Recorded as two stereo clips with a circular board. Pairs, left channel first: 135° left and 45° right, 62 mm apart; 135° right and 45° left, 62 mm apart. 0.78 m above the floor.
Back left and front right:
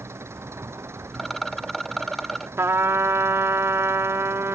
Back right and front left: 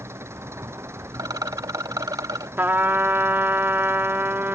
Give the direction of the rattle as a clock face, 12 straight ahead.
10 o'clock.